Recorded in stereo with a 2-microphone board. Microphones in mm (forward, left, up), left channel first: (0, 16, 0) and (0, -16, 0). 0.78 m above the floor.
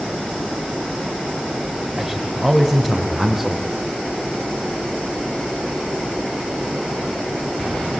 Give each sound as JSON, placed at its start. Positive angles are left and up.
{"t": 2.0, "sound": "a man speaking", "side_deg": -10, "distance_m": 3.5}